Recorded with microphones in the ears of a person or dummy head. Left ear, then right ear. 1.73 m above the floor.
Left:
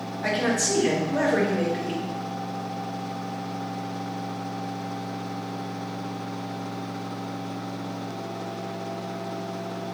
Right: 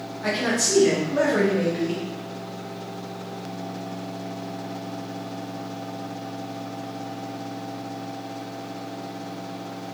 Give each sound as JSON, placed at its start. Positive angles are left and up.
{"t": 0.2, "sound": "a man speaking", "side_deg": 25, "distance_m": 1.1}